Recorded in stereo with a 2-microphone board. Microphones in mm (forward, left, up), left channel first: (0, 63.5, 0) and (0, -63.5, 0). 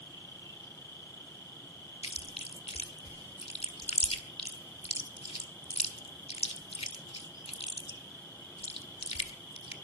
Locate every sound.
0.0 s an insect: 30° left (ahead or behind), 4 m
2.0 s chewing: 55° left (ahead or behind), 1.7 m